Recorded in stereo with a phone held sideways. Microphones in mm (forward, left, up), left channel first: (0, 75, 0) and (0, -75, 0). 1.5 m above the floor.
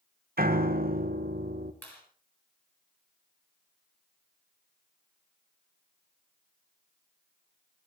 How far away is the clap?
About 8.5 m.